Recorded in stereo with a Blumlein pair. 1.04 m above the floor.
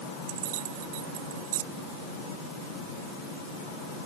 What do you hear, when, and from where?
0.3 s keys jangling: 50° right